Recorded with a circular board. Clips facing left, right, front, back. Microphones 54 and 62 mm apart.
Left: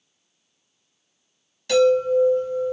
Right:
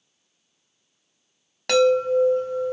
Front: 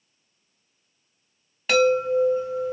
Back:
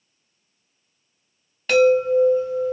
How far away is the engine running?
I don't hear an engine running.